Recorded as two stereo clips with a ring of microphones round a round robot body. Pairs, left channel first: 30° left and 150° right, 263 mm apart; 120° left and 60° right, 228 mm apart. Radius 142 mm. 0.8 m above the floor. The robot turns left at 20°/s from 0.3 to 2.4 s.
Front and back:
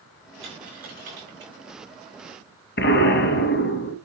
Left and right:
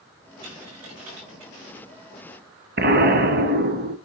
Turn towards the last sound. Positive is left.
turn(degrees=-20)